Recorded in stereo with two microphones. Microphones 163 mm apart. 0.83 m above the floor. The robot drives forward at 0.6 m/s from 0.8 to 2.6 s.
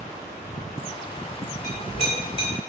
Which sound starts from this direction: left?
A clink, at 1.6 s.